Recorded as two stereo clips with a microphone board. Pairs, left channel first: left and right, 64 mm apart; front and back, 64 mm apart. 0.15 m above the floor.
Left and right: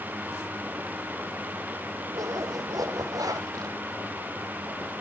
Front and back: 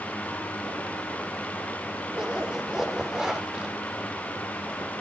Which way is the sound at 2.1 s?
100° right.